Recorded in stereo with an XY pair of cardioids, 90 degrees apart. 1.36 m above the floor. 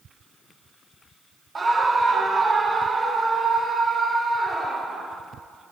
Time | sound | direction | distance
1.6 | a scream | 30° right | 0.9 m